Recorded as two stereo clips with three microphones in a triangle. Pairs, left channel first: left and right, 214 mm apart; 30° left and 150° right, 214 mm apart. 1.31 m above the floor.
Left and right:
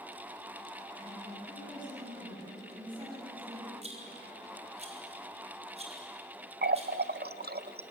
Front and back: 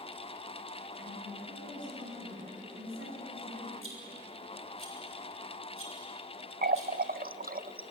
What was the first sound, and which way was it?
A woman speaking, 155° right.